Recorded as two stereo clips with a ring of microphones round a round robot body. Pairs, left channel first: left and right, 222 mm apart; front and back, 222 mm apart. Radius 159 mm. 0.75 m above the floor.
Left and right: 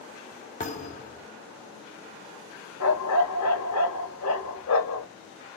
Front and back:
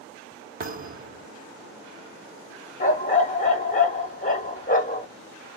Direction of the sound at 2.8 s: 55° left.